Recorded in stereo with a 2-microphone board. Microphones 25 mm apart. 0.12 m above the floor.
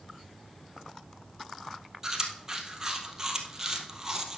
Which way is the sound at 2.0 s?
20° right (ahead or behind).